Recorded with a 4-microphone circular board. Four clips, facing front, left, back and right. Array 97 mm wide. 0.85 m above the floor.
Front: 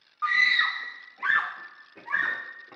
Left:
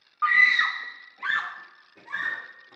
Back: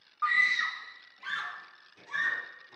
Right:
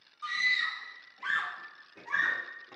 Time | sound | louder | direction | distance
0.2 | a scream | left 11 dB, front 3 dB | 90° left | 0.8 m